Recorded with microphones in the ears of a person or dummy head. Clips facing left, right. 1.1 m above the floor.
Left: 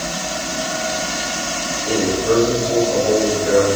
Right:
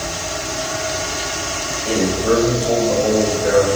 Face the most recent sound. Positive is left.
turn(degrees=-65)  # may be behind; listen again after turning